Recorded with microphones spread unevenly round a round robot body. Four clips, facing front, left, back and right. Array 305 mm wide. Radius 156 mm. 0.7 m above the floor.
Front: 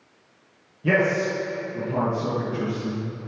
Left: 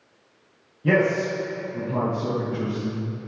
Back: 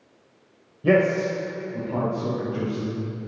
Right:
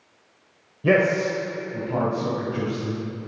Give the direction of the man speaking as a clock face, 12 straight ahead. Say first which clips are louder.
Right 1 dB, back 2 dB; 3 o'clock.